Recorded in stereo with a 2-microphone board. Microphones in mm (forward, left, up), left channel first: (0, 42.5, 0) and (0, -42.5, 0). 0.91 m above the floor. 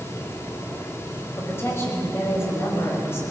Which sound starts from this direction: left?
A woman speaking, at 1.4 s.